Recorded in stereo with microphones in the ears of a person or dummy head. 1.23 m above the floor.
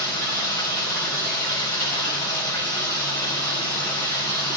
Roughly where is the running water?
Centre.